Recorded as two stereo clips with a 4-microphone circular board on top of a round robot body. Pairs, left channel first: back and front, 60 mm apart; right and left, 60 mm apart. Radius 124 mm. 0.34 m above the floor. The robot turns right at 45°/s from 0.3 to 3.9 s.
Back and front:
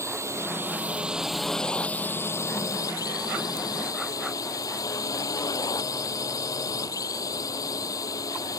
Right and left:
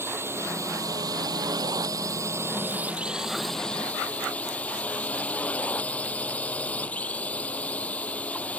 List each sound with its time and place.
0.0 s a drone: 40° left; by 8.6 s 160° right